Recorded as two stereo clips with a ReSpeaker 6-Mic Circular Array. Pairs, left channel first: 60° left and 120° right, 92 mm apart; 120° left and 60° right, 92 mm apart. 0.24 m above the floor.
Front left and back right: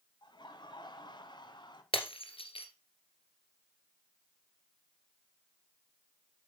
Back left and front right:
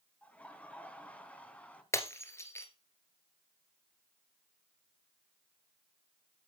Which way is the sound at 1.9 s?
60° left.